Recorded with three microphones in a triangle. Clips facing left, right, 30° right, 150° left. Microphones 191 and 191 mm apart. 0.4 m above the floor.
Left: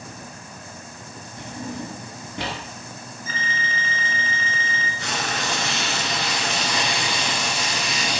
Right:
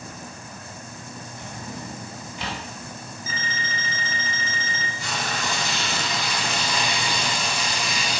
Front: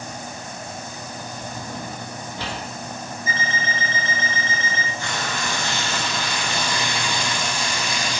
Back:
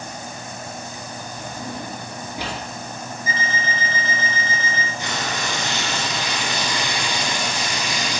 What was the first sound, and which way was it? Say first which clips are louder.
A drawer: left 7 dB, back 3 dB; 75° left.